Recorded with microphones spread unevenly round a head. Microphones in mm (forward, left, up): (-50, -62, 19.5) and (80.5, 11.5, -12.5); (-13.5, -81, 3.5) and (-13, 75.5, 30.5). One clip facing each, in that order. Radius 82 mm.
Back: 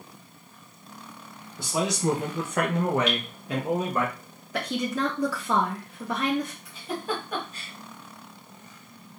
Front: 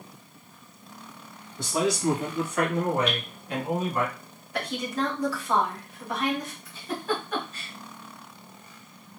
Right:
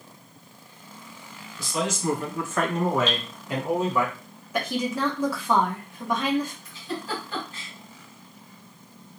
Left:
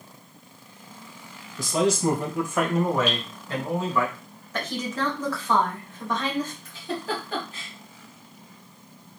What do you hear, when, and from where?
1.6 s a man speaking: 115° left, 1.0 m; by 4.1 s 155° right, 1.8 m
3.1 s dripping: 175° left, 1.0 m
4.5 s a woman speaking: 160° right, 1.4 m
6.7 s a giggle: 130° left, 1.7 m